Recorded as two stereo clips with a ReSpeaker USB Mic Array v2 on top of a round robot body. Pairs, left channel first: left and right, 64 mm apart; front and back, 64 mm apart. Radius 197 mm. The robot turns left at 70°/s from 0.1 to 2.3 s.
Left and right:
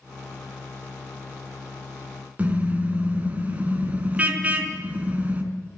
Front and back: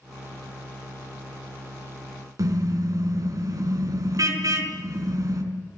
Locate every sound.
2.4 s a car horn: 155° right, 3.5 m